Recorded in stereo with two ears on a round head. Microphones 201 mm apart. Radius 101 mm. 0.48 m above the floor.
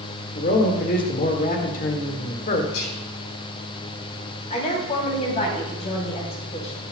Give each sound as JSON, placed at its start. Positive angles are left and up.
{"t": 0.3, "sound": "a man speaking", "side_deg": 40, "distance_m": 1.6}
{"t": 2.7, "sound": "whispering", "side_deg": 70, "distance_m": 4.0}
{"t": 4.5, "sound": "a woman speaking", "side_deg": 30, "distance_m": 3.0}